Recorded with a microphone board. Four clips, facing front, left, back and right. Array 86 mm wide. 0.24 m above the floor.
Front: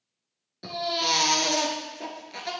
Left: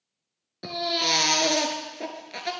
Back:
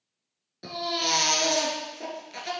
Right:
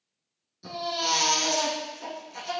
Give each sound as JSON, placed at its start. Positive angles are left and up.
{"t": 0.6, "sound": "a baby crying", "azimuth_deg": 95, "distance_m": 1.5}